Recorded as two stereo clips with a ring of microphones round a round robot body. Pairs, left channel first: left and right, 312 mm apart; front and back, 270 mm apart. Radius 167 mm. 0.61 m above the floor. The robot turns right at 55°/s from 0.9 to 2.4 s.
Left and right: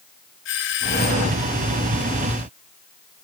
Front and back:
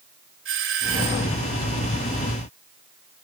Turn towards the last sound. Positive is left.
turn(degrees=-135)